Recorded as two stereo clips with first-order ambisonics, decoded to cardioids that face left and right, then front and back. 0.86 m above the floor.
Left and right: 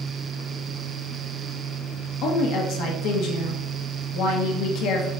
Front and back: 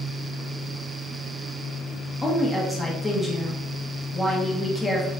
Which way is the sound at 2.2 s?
85° left.